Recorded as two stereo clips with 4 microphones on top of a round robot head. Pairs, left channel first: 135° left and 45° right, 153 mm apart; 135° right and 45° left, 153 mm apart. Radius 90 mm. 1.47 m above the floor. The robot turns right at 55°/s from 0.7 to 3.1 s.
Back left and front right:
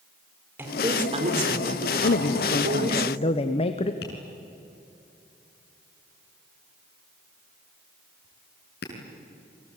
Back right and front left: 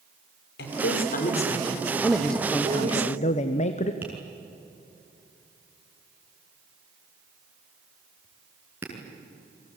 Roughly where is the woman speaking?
Behind right.